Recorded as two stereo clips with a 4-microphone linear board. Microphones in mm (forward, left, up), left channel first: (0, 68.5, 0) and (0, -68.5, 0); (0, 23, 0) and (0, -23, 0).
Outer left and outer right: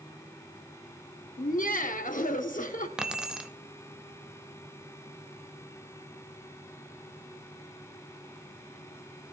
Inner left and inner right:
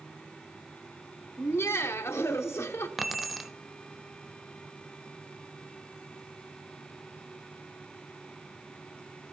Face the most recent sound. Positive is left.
turn(degrees=-5)  # may be behind; listen again after turning